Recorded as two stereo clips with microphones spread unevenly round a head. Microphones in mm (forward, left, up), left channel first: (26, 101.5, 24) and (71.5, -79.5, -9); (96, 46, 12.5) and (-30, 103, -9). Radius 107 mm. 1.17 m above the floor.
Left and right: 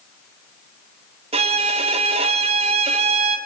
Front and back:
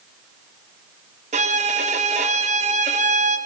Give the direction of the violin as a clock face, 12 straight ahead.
5 o'clock.